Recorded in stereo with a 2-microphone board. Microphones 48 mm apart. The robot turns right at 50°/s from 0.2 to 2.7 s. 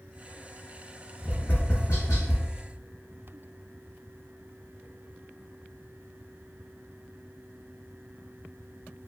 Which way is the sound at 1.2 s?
30° left (ahead or behind).